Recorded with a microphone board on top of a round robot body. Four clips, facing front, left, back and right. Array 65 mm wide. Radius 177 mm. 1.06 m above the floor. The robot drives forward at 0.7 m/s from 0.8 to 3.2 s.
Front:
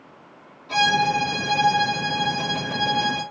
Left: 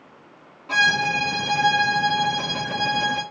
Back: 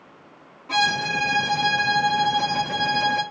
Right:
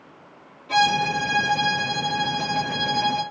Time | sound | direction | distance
0.7 | a violin | 105° left | 3.5 m